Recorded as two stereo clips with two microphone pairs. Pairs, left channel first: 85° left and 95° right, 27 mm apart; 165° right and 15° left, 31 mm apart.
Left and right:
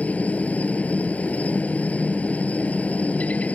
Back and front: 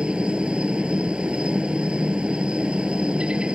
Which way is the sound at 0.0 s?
70° left.